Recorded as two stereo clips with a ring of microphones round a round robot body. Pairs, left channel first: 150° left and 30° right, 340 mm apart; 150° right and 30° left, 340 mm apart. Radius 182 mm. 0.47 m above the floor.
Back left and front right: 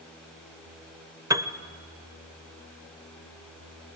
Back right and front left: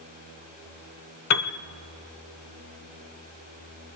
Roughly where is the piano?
Right.